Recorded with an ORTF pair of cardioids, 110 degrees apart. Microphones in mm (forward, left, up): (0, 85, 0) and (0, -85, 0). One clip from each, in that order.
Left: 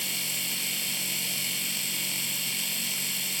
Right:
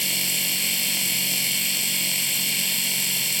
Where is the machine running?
40° right.